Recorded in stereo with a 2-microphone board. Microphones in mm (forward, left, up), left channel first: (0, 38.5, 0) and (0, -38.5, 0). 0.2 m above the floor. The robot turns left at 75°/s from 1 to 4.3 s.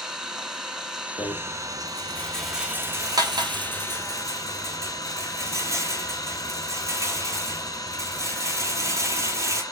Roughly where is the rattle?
Left.